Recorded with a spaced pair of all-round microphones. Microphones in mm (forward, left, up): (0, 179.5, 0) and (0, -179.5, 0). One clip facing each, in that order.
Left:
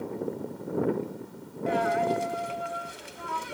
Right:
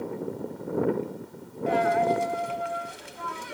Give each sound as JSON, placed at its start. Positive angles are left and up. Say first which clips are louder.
{"t": 1.7, "sound": "a dropped coin", "louder": "right 2 dB", "side_deg": 0, "distance_m": 1.0}